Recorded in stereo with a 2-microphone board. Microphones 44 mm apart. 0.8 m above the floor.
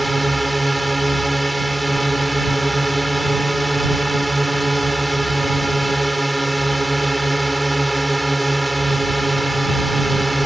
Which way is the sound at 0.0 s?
Centre (ahead or behind).